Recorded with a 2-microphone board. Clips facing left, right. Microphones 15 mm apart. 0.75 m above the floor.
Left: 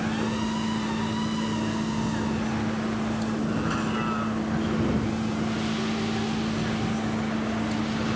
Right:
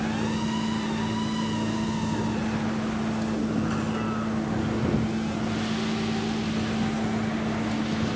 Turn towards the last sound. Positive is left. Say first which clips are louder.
# even
turn(degrees=20)  # may be behind; listen again after turning